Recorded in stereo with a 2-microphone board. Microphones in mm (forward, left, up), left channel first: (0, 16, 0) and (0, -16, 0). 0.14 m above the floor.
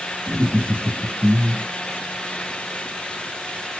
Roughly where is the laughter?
Right.